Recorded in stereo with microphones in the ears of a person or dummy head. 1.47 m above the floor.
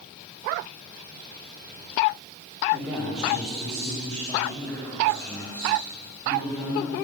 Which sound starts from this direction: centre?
A man speaking, at 2.7 s.